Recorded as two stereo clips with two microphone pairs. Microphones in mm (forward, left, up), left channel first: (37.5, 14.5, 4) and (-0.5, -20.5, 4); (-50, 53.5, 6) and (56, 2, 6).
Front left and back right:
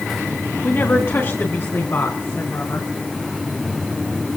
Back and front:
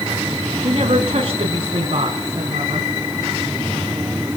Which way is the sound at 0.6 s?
10° left.